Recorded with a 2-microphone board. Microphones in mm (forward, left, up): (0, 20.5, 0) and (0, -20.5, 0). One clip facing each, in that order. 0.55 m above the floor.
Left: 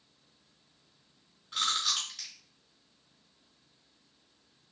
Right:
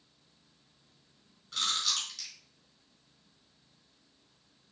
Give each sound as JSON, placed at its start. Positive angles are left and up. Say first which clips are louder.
{"t": 1.5, "sound": "chewing", "louder": "left 1 dB", "side_deg": 15, "distance_m": 2.5}